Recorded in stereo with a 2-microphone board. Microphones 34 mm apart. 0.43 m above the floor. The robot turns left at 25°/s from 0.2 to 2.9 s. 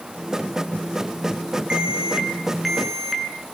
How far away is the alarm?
About 6 m.